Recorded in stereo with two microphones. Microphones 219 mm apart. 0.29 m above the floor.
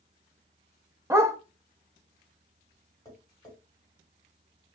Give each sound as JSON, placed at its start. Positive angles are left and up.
{"t": 1.1, "sound": "a dog barking", "side_deg": -15, "distance_m": 0.5}
{"t": 3.0, "sound": "tapping", "side_deg": 15, "distance_m": 1.6}